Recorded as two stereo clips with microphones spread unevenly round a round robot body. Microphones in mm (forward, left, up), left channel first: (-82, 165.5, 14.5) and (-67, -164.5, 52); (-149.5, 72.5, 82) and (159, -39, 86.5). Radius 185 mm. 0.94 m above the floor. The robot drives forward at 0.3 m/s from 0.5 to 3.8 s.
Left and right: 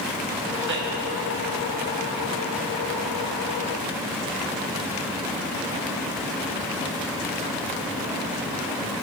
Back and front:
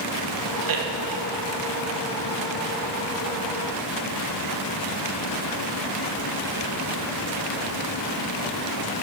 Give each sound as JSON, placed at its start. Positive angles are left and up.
{"t": 0.6, "sound": "a man speaking", "azimuth_deg": -25, "distance_m": 1.8}